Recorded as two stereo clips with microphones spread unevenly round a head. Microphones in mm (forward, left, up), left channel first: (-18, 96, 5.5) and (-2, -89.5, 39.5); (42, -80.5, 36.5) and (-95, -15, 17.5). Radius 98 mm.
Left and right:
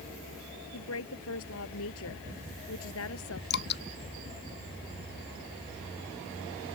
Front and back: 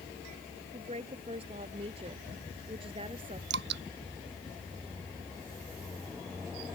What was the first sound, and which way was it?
A woman speaking, 95° left.